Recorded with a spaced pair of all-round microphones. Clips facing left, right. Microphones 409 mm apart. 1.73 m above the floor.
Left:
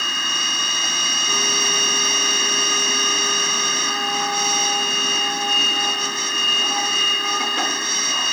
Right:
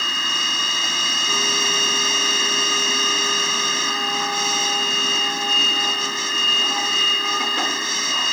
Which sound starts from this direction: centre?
A machine running, at 0.0 s.